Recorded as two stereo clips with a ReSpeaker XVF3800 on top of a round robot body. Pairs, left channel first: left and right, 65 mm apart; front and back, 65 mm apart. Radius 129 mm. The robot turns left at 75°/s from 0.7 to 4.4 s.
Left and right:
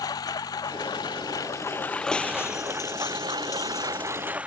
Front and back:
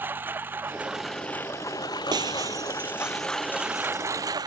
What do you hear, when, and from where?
0.0 s a lawn mower: 115° left; by 4.5 s 160° right
2.1 s breaking glass: 170° left; by 4.1 s 20° left